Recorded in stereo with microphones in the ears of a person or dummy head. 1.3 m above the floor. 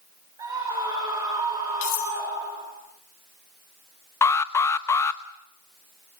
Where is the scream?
15° right (ahead or behind), 5 m.